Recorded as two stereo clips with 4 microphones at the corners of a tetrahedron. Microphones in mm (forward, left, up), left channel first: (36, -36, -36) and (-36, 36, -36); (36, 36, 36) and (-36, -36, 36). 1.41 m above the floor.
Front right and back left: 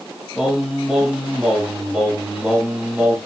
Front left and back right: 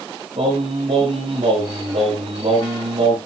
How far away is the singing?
About 6 m.